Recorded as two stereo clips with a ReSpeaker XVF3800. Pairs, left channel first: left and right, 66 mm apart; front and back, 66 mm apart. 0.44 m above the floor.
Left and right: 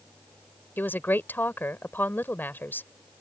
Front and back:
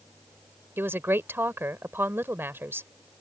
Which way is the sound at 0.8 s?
140° left.